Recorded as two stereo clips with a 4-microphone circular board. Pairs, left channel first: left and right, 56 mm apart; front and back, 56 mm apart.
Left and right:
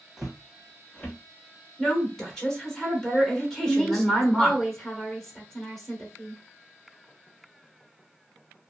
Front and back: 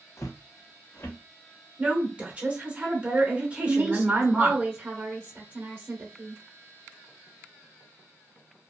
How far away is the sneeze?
No sneeze in this recording.